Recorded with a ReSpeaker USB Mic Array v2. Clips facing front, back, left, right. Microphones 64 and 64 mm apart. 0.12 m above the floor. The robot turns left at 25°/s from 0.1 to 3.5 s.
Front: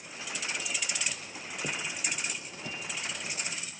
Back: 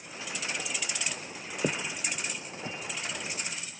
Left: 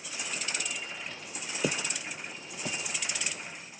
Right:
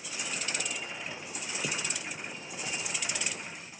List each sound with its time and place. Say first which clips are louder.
1.6 s footsteps: back 4 dB, left 6 dB; 135° left, 0.5 m; by 3.7 s 80° left, 2 m